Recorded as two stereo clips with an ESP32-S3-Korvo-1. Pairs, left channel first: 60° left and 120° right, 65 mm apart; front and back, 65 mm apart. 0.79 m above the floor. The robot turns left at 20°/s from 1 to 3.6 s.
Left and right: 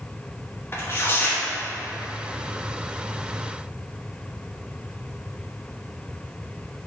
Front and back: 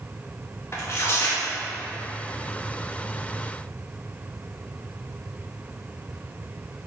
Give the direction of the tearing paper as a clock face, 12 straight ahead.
11 o'clock.